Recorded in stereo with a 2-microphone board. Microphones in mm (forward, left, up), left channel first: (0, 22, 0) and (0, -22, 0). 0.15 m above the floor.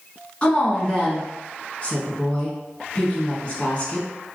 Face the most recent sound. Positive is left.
turn(degrees=30)  # may be behind; listen again after turning